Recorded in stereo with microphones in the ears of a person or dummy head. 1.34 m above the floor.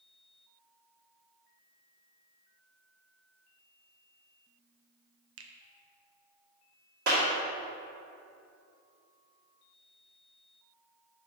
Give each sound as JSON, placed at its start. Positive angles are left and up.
{"t": 5.4, "sound": "a finger snap", "side_deg": -70, "distance_m": 0.8}
{"t": 7.1, "sound": "a clap", "side_deg": -55, "distance_m": 1.9}